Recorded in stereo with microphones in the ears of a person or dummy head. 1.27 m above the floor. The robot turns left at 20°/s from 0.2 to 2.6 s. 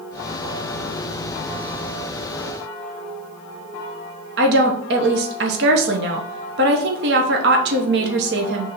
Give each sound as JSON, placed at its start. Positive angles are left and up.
{"t": 4.4, "sound": "a woman speaking", "side_deg": -55, "distance_m": 0.7}